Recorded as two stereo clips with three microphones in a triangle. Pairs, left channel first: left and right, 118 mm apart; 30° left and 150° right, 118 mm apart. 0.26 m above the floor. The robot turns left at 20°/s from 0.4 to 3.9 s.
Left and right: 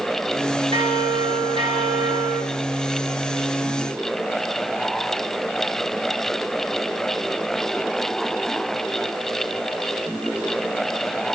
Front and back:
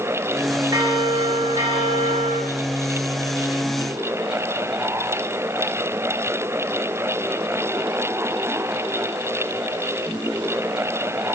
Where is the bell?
100° right, 2 m; by 2.4 s 135° right, 2 m.